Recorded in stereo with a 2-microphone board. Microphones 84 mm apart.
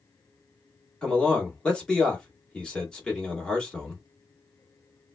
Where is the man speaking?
10° left (ahead or behind), 1.5 m.